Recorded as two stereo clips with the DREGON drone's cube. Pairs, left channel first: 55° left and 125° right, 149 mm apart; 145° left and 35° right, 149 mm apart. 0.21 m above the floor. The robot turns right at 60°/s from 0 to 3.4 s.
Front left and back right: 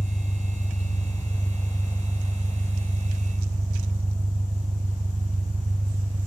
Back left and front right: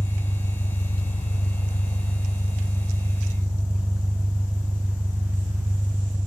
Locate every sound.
0.0 s an engine running: 45° left, 1.5 m; by 6.3 s 110° right, 1.5 m